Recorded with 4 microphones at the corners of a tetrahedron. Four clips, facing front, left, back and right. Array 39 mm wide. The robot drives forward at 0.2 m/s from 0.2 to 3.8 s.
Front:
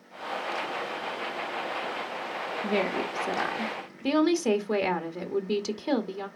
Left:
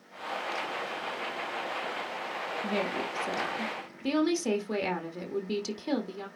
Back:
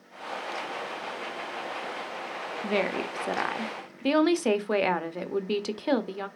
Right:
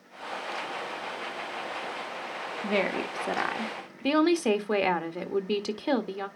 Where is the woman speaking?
120° right, 1.3 m; by 6.3 s 130° right, 1.4 m.